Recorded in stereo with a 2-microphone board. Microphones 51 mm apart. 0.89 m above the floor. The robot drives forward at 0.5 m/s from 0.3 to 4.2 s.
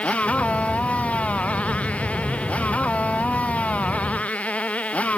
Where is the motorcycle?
25° left (ahead or behind).